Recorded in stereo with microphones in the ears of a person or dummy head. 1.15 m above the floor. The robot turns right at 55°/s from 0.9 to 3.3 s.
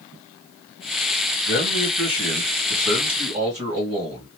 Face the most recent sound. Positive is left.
turn(degrees=-145)